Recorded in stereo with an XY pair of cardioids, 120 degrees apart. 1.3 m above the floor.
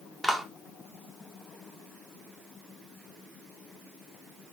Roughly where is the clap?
Ahead.